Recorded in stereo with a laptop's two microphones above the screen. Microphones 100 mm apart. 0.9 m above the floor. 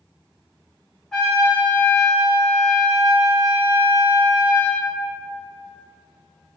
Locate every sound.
1.1 s a trumpet: 5° left (ahead or behind), 1.0 m